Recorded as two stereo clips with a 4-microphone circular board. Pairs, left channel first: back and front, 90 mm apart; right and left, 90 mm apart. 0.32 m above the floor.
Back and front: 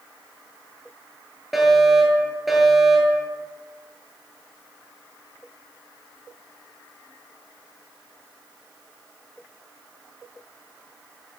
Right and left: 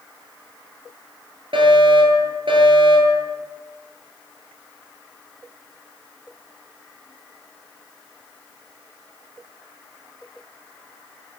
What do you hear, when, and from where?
1.5 s a fire alarm: 90° left, 10 m